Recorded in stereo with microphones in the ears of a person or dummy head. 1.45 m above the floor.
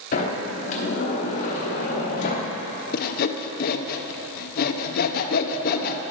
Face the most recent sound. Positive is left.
turn(degrees=50)  # may be behind; listen again after turning